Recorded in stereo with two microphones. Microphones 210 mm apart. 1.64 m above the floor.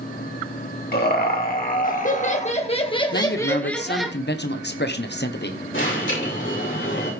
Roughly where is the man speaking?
Left.